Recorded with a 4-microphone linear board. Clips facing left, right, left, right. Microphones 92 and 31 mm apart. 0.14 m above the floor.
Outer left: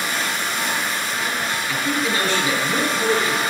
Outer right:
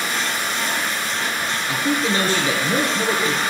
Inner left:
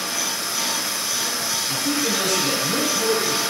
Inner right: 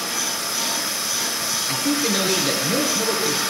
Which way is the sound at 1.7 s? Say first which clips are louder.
Outer right 3 dB, inner right 2 dB; 30° right (ahead or behind).